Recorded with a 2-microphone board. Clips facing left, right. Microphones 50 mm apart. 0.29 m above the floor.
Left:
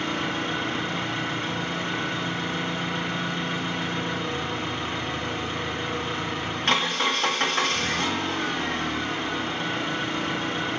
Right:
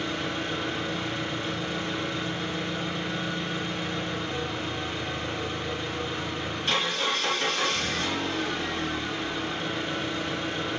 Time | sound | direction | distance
0.0 | an engine running | 55° left (ahead or behind) | 1.3 m